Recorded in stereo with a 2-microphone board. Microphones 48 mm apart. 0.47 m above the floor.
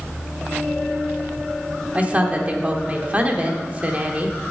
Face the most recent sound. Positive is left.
turn(degrees=-30)  # may be behind; listen again after turning